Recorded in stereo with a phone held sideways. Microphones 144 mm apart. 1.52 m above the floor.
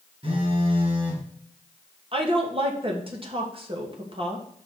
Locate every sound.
0.2 s a phone buzzing: 40° right (ahead or behind), 2.5 m
2.1 s a woman speaking: 40° right (ahead or behind), 1.4 m